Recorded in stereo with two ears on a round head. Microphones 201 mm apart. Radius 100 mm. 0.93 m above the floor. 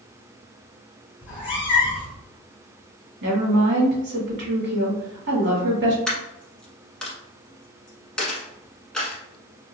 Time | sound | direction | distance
1.2 | a cat meowing | 25° left (ahead or behind) | 1.1 m
3.2 | a woman speaking | 50° right (ahead or behind) | 1.4 m
6.1 | a dropped coin | 5° left (ahead or behind) | 0.9 m